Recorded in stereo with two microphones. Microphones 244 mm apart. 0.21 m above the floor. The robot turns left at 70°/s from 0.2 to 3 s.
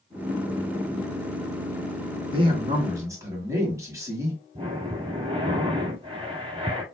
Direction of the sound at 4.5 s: 25° right (ahead or behind).